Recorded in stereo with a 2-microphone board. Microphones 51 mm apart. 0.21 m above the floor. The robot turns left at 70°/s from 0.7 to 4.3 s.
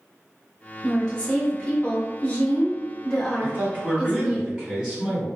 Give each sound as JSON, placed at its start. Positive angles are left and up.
{"t": 0.8, "sound": "a woman speaking", "azimuth_deg": 170, "distance_m": 1.5}
{"t": 3.4, "sound": "a man speaking", "azimuth_deg": -85, "distance_m": 1.8}